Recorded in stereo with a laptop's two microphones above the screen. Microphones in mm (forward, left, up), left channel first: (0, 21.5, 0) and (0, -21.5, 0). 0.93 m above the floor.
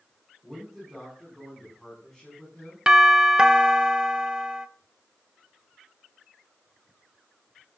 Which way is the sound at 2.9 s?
15° right (ahead or behind).